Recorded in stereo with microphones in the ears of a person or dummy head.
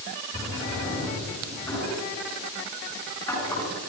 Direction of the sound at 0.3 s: 15° left (ahead or behind).